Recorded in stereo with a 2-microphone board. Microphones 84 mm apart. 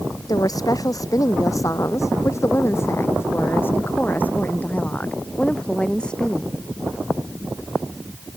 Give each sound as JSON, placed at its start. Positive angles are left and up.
{"t": 0.3, "sound": "a woman speaking", "side_deg": 50}